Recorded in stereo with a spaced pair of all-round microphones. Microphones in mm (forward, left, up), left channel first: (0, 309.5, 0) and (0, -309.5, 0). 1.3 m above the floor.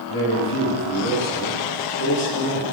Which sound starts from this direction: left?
A man speaking, at 0.1 s.